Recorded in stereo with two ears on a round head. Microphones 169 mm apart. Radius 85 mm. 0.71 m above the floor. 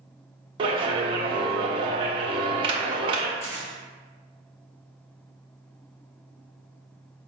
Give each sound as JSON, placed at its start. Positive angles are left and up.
{"t": 0.6, "sound": "a clap", "side_deg": -25, "distance_m": 0.5}
{"t": 3.4, "sound": "tearing paper", "side_deg": 35, "distance_m": 1.3}